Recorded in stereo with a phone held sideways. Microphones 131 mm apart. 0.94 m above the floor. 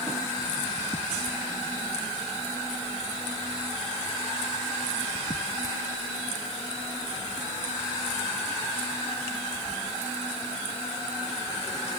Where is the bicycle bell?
I don't hear a bicycle bell.